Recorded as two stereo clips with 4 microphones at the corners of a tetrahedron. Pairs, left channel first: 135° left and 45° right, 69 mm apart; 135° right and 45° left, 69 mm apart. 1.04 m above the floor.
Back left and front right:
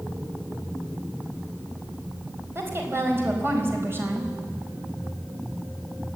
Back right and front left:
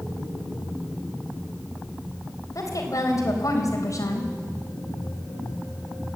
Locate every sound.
2.5 s a woman speaking: 100° right, 4.5 m